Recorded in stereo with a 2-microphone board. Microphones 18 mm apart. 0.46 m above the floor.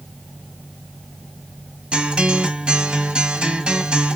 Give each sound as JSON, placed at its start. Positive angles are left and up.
{"t": 1.9, "sound": "a guitar", "side_deg": -85, "distance_m": 1.1}